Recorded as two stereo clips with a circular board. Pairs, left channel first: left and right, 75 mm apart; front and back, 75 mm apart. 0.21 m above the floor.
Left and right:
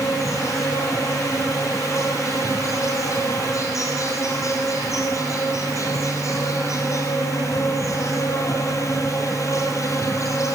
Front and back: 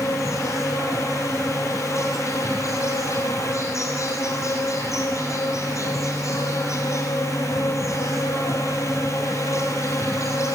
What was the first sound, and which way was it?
An insect, 45° left.